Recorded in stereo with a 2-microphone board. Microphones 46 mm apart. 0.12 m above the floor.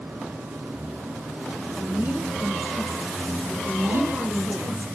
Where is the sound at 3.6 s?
65° right (ahead or behind), 3 m.